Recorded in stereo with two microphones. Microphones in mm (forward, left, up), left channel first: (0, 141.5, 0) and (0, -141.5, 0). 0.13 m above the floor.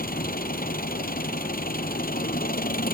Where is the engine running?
30° left (ahead or behind).